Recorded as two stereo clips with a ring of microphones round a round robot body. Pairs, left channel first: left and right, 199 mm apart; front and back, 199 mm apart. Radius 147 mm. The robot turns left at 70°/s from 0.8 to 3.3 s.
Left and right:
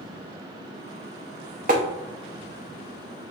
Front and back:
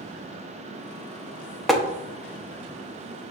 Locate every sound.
1.7 s tapping: 90° right, 0.8 m; by 1.8 s 95° right, 0.8 m